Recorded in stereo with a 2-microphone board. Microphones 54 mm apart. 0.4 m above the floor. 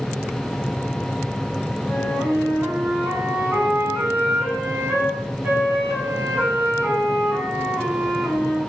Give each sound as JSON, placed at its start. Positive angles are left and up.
{"t": 1.9, "sound": "a flute", "side_deg": -35, "distance_m": 1.9}